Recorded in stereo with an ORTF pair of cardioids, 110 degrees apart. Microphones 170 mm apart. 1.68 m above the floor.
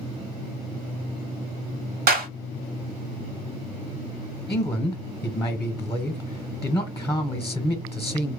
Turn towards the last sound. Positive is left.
turn(degrees=20)